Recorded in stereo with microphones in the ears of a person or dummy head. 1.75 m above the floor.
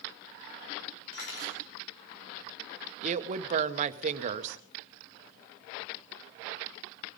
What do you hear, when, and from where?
1.1 s cutlery clinking: 70° left (ahead or behind), 2.5 m
3.0 s a woman speaking: 45° right (ahead or behind), 1.1 m